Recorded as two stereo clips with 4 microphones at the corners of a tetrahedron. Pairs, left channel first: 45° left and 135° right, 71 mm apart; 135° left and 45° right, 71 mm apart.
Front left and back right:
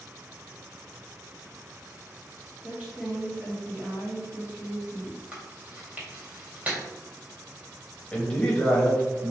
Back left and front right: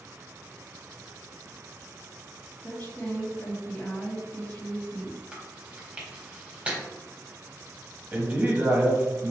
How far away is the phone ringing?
I don't hear a phone ringing.